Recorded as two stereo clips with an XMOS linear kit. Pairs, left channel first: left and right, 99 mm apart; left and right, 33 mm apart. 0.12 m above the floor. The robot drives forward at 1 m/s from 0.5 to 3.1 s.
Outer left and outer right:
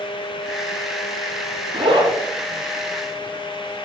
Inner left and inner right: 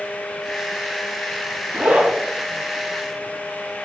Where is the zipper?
55° right (ahead or behind), 3.5 m; by 2.2 s 50° right (ahead or behind), 4 m.